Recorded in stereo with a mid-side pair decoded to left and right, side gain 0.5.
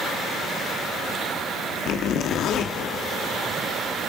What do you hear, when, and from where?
1.9 s a zipper: 70° left, 1.4 m